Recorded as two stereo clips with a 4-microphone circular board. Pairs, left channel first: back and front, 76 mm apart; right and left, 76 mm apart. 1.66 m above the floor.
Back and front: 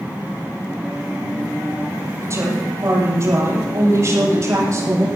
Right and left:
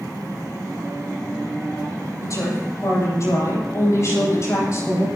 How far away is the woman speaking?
About 7.5 m.